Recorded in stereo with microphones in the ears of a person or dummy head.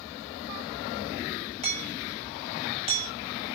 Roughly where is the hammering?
Right.